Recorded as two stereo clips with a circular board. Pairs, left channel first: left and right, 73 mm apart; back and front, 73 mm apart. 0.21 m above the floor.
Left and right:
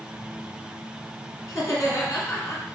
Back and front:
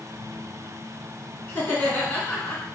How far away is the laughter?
About 2.0 m.